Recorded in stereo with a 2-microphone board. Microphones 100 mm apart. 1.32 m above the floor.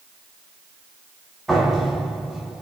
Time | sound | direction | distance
1.5 | a door slam | centre (ahead or behind) | 4.5 m